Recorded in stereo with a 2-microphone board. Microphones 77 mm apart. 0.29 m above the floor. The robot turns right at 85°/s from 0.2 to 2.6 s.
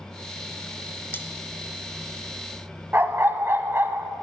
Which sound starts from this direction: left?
Cutlery clinking, at 1.1 s.